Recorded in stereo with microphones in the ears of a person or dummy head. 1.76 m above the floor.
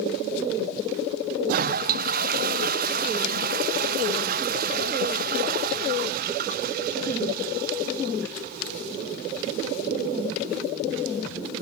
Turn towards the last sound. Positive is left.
turn(degrees=-50)  # may be behind; listen again after turning